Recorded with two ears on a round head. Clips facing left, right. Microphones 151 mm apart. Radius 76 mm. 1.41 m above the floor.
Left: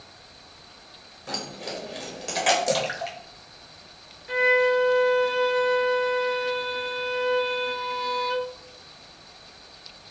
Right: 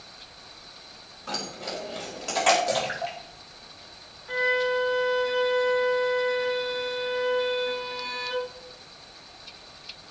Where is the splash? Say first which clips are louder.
Left 2 dB; 60° left (ahead or behind), 3 m.